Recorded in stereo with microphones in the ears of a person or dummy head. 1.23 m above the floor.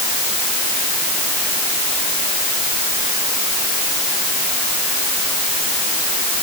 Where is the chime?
I don't hear a chime.